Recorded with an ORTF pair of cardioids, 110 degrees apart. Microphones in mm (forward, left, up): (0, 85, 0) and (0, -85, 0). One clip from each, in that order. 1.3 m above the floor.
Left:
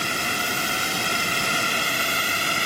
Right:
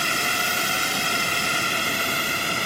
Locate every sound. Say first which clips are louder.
0.0 s a drone: right 2 dB; 15° right; by 2.7 s 15° left